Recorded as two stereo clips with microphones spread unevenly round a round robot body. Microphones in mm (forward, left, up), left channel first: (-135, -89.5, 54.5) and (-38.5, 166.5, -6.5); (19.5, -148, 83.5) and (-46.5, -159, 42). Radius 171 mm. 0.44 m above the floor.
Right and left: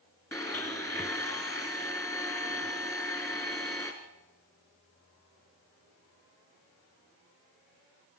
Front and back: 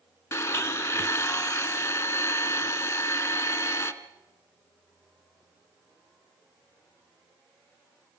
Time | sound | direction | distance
0.3 | a blender | 30° right | 1.5 m